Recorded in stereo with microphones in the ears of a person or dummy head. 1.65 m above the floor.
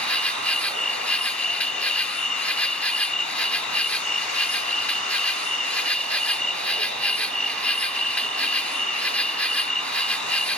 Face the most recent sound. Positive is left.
turn(degrees=10)  # may be behind; listen again after turning